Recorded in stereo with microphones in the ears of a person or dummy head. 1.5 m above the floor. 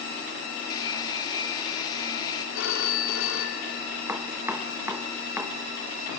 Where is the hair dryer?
25° left (ahead or behind), 2 m.